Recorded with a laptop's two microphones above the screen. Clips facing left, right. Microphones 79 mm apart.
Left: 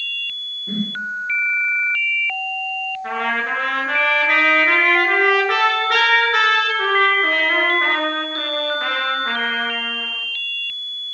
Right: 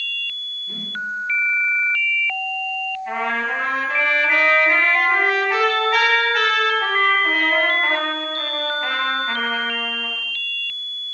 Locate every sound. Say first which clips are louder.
0.7 s a whoosh: left 9 dB; 50° left (ahead or behind), 2 m
3.0 s a trumpet: left 1 dB; 80° left, 9.5 m